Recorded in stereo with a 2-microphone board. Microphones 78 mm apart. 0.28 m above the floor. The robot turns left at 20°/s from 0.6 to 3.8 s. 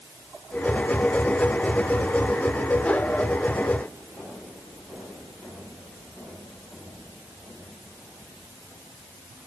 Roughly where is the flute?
I don't hear a flute.